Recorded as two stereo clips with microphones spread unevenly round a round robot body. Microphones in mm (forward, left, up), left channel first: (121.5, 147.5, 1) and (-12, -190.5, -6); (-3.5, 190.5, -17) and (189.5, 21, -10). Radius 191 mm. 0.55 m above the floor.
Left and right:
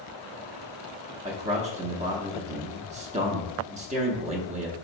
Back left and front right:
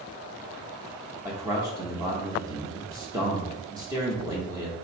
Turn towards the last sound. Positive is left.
turn(degrees=-95)